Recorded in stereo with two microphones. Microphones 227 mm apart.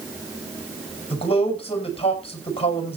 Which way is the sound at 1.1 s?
25° left (ahead or behind).